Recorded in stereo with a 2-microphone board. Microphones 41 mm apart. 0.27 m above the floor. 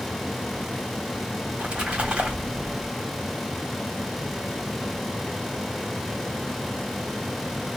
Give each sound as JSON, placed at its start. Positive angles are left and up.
{"t": 1.5, "sound": "a splash", "side_deg": -30, "distance_m": 1.7}